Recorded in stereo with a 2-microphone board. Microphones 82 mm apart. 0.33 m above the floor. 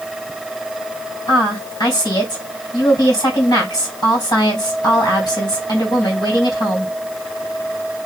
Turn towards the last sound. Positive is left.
turn(degrees=55)  # may be behind; listen again after turning